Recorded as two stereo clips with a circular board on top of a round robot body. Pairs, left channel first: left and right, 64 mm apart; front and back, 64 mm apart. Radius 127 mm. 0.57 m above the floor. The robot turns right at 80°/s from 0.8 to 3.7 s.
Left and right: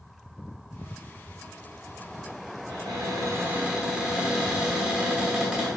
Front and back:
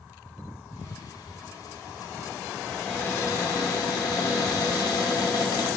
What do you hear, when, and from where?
2.7 s a cupboard door: 90° right, 0.8 m; by 5.7 s 10° right, 0.8 m